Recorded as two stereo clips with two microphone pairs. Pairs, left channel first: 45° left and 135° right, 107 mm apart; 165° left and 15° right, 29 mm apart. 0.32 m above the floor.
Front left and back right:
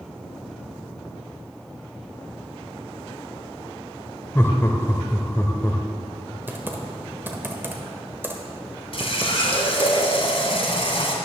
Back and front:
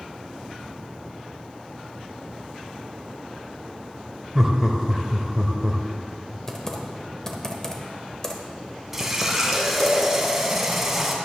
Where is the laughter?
30° left, 0.9 m.